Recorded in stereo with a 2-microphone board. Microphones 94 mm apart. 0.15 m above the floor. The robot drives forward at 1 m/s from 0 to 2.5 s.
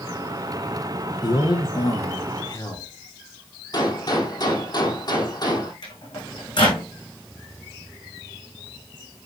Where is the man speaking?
50° left (ahead or behind), 2 m; by 2.9 s 40° left (ahead or behind), 2.5 m.